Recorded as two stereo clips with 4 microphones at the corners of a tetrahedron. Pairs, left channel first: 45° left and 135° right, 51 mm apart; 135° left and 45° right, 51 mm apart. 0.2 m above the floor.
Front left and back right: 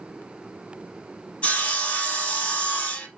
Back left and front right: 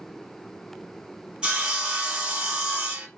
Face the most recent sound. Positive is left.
turn(degrees=5)